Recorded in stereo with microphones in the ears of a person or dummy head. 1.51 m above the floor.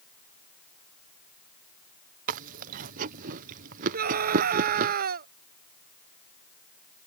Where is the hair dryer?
No hair dryer in this recording.